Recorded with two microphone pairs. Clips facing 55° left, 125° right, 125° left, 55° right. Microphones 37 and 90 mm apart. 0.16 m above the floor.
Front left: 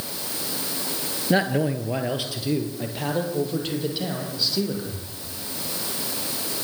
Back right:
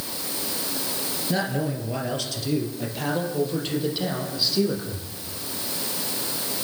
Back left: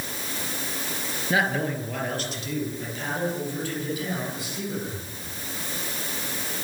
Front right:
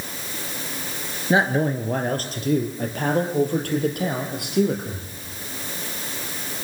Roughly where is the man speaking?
Ahead.